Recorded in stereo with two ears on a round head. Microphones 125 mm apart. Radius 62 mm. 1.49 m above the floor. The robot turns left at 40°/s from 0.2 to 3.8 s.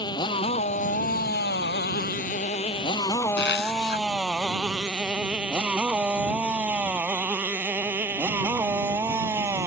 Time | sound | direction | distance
0.0 | a motorcycle | 35° left (ahead or behind) | ?
3.4 | a zipper | 90° left | ?